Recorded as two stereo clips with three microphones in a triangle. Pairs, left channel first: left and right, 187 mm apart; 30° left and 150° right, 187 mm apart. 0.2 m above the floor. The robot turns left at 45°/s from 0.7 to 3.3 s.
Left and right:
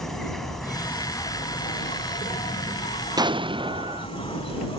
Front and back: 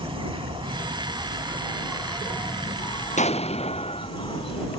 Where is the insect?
175° left; by 4.8 s 60° left.